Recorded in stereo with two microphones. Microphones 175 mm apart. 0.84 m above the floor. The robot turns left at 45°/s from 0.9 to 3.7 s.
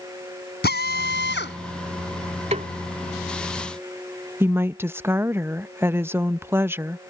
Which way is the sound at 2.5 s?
40° right (ahead or behind).